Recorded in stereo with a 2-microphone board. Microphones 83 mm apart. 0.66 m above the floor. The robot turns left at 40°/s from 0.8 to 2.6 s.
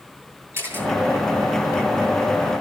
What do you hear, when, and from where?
0.5 s a camera shutter: 30° right (ahead or behind), 9 m; by 0.9 s 25° right (ahead or behind), 9 m